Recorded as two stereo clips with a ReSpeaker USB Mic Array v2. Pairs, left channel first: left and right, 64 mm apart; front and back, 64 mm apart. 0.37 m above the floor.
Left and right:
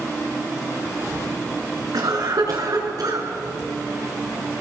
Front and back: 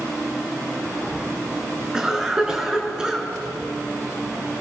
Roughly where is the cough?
Right.